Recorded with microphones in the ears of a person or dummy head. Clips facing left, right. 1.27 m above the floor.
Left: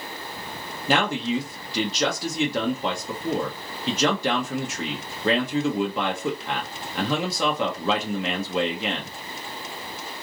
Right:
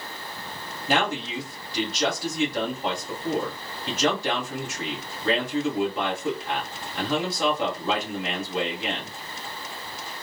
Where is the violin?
No violin in this recording.